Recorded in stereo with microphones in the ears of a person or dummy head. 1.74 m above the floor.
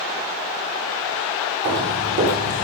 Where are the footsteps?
55° right (ahead or behind), 3 m; by 2.6 s 45° right (ahead or behind), 2.5 m.